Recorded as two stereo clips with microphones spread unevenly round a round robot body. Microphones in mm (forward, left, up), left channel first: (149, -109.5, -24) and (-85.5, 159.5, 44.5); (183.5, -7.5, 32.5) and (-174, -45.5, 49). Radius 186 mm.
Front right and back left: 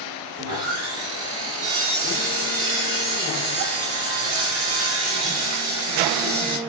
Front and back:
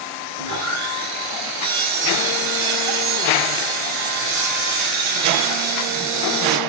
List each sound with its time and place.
0.4 s sawing: 175° right, 3.5 m